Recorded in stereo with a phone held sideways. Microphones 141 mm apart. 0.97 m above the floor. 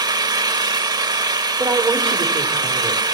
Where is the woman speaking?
35° right (ahead or behind), 3 m.